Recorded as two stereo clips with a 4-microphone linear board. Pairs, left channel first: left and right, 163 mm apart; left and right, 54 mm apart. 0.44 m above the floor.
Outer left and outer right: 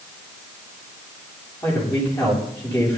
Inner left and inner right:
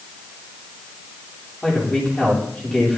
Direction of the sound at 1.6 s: 25° left (ahead or behind).